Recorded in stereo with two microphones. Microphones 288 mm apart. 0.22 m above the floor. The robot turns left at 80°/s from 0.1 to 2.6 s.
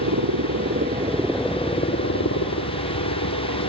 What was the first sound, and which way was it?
A helicopter, 75° right (ahead or behind).